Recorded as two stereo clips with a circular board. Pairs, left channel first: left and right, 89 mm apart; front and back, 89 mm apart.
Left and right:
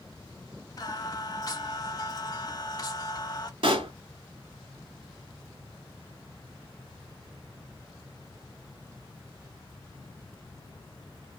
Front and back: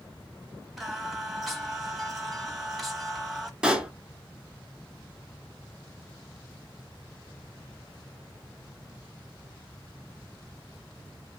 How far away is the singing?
About 0.8 m.